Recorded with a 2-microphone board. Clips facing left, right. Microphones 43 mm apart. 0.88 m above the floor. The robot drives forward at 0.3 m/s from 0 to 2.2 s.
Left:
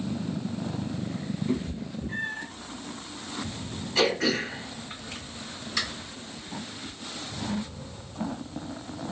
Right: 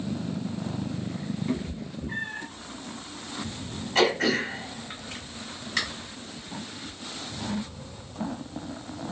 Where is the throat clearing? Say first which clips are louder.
Right 2 dB; 70° right (ahead or behind), 1.8 m.